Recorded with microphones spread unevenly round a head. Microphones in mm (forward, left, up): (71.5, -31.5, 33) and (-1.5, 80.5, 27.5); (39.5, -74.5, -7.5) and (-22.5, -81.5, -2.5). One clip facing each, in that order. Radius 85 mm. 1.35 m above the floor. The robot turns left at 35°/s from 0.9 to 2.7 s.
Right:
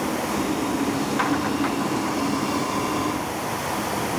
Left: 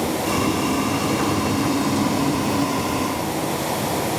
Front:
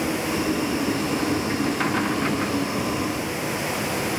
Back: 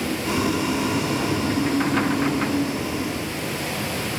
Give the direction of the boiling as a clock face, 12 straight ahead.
7 o'clock.